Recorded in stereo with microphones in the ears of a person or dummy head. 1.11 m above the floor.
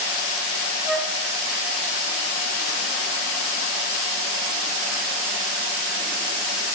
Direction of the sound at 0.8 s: 5° right (ahead or behind).